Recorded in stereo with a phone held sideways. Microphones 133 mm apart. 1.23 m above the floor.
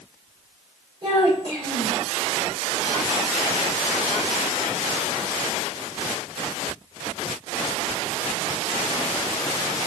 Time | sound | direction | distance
1.0 | a child speaking | 40° right (ahead or behind) | 3.5 m